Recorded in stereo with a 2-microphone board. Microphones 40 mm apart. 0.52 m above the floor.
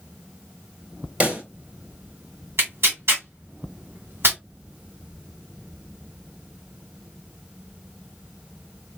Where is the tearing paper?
85° right, 2.0 m.